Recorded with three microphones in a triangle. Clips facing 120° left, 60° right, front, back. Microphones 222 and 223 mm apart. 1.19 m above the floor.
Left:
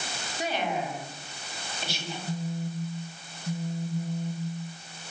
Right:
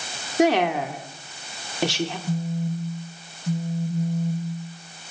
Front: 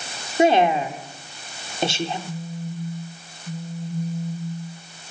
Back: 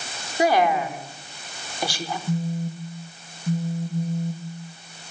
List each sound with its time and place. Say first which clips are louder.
0.4 s a woman speaking: right 11 dB, front 3 dB; 65° right, 3.5 m
2.3 s a phone buzzing: right 6 dB, back 5 dB; 125° right, 8.5 m